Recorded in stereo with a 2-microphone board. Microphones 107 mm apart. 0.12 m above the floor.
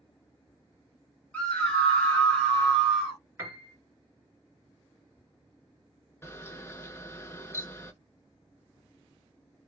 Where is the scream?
10° left (ahead or behind), 1.6 m; by 3.2 s 5° right (ahead or behind), 1.5 m.